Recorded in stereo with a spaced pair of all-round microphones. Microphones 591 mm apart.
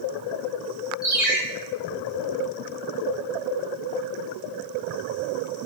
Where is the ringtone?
Centre (ahead or behind), 1.1 m.